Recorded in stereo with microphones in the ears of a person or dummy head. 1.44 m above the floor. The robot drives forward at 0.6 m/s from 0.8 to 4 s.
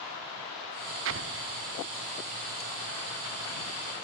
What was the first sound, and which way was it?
An explosion, 65° right (ahead or behind).